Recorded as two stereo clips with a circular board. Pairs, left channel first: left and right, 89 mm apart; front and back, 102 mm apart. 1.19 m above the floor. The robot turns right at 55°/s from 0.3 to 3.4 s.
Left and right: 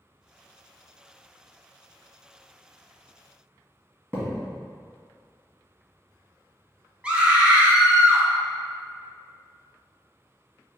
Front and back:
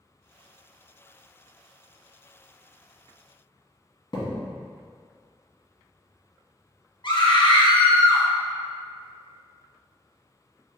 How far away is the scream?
About 1.0 m.